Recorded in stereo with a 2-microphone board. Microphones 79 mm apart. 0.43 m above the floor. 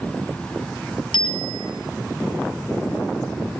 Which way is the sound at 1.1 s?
75° left (ahead or behind).